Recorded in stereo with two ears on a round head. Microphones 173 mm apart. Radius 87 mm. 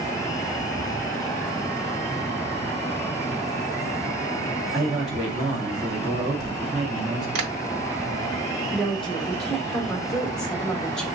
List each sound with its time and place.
4.7 s a man speaking: 5° right (ahead or behind), 1.6 m
7.3 s tapping: 75° right (ahead or behind), 1.1 m
8.7 s a woman speaking: 5° left (ahead or behind), 1.3 m